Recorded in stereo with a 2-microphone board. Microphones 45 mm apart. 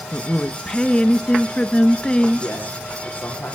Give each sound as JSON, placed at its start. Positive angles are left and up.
{"t": 0.1, "sound": "a woman speaking", "side_deg": 25, "distance_m": 1.2}
{"t": 2.4, "sound": "a man speaking", "side_deg": 40, "distance_m": 7.5}